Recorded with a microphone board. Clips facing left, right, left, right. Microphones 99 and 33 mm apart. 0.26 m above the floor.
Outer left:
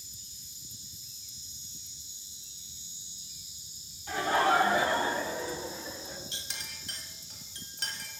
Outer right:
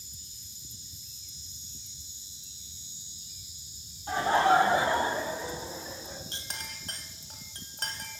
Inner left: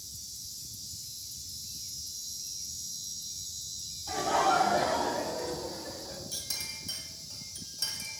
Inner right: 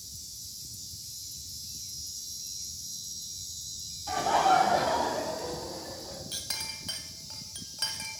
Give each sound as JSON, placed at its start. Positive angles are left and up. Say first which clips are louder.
{"t": 4.1, "sound": "laughter", "louder": "outer right 3 dB, inner right 3 dB", "side_deg": -30, "distance_m": 1.3}
{"t": 6.3, "sound": "a clink", "louder": "outer right 3 dB, inner right 3 dB", "side_deg": -45, "distance_m": 1.0}